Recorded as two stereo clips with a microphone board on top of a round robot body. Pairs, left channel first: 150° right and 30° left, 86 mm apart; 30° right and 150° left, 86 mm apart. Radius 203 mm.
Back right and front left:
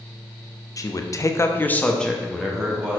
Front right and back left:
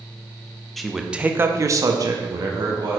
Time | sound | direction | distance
0.8 | a man speaking | 120° right | 1.0 m